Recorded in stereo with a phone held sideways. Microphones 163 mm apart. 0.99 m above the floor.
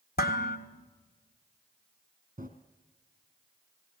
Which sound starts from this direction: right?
Running footsteps, at 2.4 s.